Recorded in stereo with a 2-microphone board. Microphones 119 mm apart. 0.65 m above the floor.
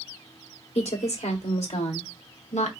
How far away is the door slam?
I don't hear a door slam.